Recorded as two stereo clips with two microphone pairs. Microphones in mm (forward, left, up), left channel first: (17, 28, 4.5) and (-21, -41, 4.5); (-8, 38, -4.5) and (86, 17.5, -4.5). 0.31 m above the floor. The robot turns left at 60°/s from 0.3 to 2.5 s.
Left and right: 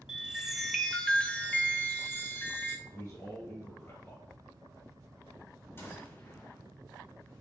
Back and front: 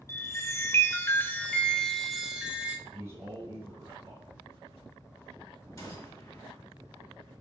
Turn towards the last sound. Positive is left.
turn(degrees=115)